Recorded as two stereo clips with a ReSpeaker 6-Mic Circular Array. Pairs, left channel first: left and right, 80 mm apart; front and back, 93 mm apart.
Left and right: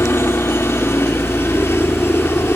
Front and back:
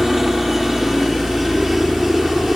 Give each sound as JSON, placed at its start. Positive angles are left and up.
{"t": 0.0, "sound": "a helicopter", "azimuth_deg": 95}